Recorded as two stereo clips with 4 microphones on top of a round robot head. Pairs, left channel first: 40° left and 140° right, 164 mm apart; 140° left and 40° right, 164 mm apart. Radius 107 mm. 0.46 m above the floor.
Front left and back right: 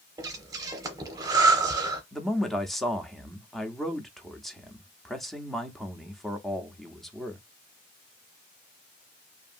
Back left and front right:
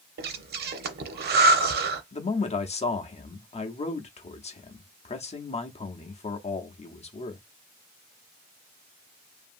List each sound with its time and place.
0.2 s breathing: 70° right, 0.6 m
2.1 s a man speaking: 130° left, 0.8 m